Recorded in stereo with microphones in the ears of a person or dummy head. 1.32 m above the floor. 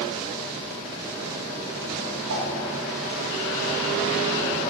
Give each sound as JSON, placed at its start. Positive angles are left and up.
{"t": 2.3, "sound": "a whoosh", "side_deg": -60, "distance_m": 1.6}